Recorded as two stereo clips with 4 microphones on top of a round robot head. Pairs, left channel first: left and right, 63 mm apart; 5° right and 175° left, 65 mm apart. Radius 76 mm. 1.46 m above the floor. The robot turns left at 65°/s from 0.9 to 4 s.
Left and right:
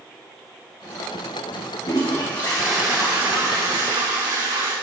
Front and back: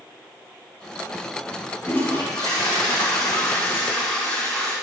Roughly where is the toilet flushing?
Ahead left.